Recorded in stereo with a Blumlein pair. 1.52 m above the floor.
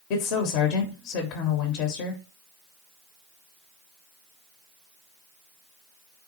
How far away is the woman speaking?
About 0.7 m.